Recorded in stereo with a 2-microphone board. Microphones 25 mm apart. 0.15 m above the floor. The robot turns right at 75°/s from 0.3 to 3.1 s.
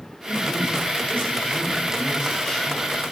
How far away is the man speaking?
About 3.5 m.